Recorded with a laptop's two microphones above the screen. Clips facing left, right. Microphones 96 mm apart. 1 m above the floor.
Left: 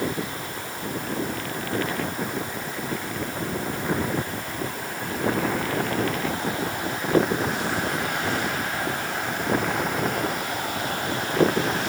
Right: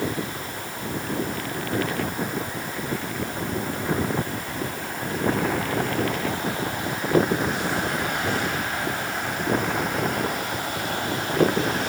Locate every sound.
Only background noise.